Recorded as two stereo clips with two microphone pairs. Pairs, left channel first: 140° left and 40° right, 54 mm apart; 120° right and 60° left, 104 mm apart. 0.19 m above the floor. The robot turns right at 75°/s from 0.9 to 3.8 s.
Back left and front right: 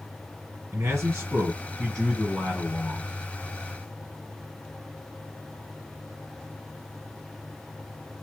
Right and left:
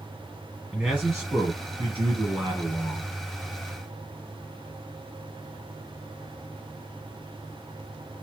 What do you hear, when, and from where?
0.7 s a man speaking: 20° right, 2.5 m; by 3.1 s 140° left, 2.5 m